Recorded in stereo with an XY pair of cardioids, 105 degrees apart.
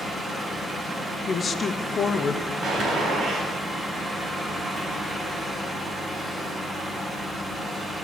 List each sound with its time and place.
0.0 s a fan: 20° right, 2.5 m
1.3 s a woman speaking: 40° left, 0.6 m
2.6 s a gunshot: 65° right, 3.5 m